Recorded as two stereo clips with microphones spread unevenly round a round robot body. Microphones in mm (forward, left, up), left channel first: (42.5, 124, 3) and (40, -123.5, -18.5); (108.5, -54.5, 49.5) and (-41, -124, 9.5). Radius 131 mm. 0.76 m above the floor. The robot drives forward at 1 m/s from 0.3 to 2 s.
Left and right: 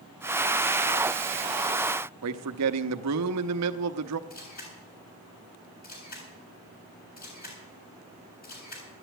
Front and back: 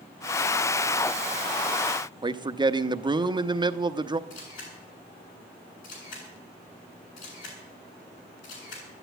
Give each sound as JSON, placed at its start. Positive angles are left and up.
{"t": 2.2, "sound": "a man speaking", "azimuth_deg": -100, "distance_m": 0.9}
{"t": 4.3, "sound": "a camera shutter", "azimuth_deg": 35, "distance_m": 8.0}